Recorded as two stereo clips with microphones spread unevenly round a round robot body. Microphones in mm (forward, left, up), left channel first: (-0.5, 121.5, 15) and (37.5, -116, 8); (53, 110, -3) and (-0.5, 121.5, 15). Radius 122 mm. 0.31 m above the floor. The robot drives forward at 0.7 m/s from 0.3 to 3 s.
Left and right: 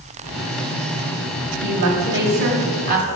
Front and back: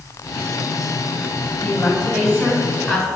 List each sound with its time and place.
1.6 s a woman speaking: 105° right, 2.5 m; by 3.1 s 130° right, 2.5 m